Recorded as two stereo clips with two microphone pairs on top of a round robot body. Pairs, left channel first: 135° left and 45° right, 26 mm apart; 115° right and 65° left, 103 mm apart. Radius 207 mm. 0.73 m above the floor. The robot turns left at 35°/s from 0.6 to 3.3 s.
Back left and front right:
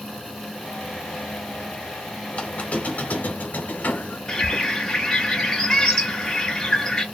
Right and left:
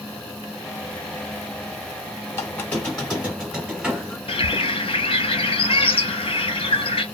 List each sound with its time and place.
2.3 s a squeak: 175° right, 0.8 m; by 4.2 s 150° left, 0.8 m
4.3 s a bird: 145° right, 0.7 m